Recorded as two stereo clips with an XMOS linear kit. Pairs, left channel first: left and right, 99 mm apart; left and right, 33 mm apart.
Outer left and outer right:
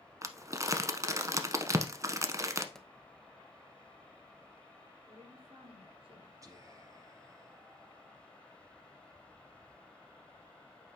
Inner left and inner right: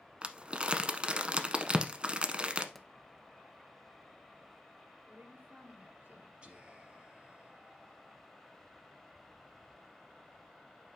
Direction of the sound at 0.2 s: 35° right (ahead or behind).